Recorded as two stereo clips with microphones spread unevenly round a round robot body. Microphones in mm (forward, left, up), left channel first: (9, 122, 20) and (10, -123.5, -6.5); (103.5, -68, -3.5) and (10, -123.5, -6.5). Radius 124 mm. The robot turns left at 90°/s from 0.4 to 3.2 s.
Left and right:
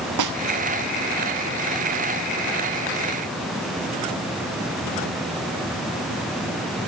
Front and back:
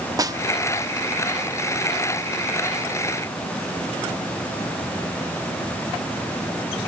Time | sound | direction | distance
0.2 | a snare drum | 90° right | 1.3 m